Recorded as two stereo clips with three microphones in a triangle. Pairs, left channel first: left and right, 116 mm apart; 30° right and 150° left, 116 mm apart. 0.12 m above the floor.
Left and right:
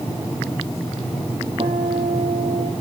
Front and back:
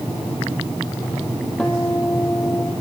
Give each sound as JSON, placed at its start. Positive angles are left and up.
{"t": 1.6, "sound": "a guitar", "azimuth_deg": -110, "distance_m": 2.5}